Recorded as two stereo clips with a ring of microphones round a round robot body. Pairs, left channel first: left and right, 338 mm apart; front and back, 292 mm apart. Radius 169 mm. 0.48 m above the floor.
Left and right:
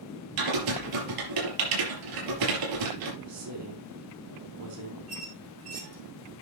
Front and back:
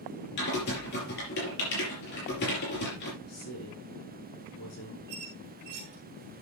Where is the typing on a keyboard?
60° right, 5 m.